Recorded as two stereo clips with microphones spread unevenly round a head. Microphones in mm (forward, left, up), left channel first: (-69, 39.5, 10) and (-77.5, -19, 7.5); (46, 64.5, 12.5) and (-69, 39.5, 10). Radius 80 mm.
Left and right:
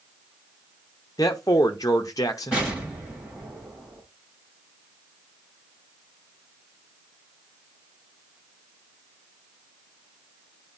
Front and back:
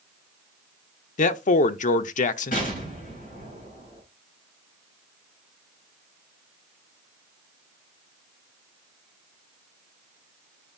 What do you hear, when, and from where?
1.2 s a man speaking: 25° left, 0.6 m
2.5 s an explosion: 15° right, 6.5 m